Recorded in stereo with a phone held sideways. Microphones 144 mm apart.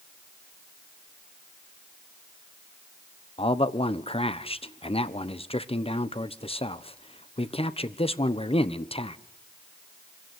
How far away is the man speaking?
About 1.1 m.